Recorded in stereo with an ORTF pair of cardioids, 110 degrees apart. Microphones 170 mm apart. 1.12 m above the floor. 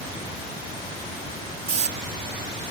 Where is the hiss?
40° right.